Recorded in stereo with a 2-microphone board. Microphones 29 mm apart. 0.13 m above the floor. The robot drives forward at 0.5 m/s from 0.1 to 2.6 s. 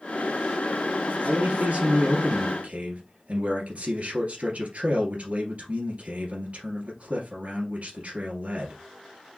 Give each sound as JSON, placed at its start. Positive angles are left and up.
{"t": 1.2, "sound": "a man speaking", "side_deg": -45, "distance_m": 2.0}